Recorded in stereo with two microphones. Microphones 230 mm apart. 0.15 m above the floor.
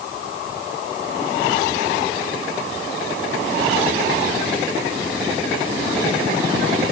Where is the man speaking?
I don't hear a man speaking.